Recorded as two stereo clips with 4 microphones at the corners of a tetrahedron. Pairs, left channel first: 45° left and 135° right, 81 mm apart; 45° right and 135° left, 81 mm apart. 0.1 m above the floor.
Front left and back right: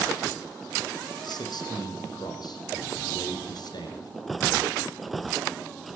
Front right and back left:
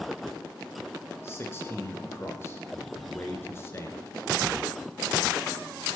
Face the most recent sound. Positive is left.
turn(degrees=15)